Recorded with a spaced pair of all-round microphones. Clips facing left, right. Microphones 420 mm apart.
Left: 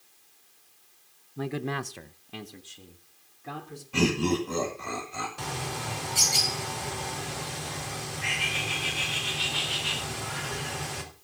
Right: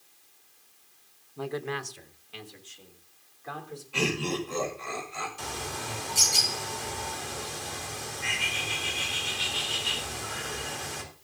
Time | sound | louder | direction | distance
1.4 | a man speaking | left 1 dB | 30° left (ahead or behind) | 1.0 m
3.9 | laughter | left 5 dB | 60° left (ahead or behind) | 2.5 m
5.4 | a bird | left 2 dB | 75° left (ahead or behind) | 4 m